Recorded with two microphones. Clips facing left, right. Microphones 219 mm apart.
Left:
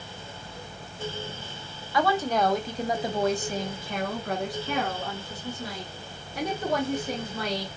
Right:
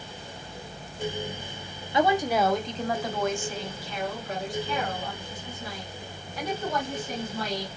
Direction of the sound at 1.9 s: 20° right (ahead or behind).